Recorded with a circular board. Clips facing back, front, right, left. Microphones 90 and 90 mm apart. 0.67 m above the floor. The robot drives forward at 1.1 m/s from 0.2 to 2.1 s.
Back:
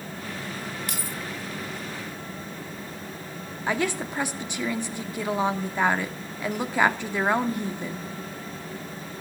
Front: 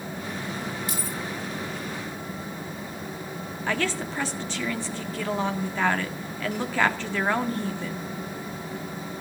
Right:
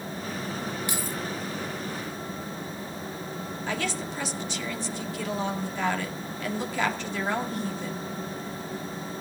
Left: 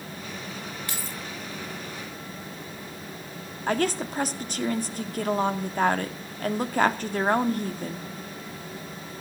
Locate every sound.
0.9 s keys jangling: 165° right, 1.3 m
3.7 s a woman speaking: 110° left, 1.7 m